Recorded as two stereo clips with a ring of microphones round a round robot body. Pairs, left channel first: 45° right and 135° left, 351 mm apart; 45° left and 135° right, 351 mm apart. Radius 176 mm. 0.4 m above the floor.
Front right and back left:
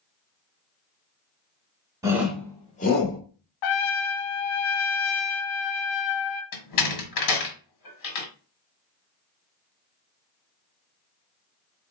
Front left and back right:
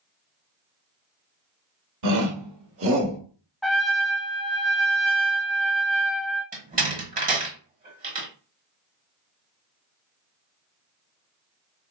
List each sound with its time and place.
2.0 s a shout: 145° right, 1.3 m; by 3.2 s 80° right, 1.1 m
3.6 s a trumpet: 45° right, 0.6 m
6.5 s a door slam: 70° right, 1.2 m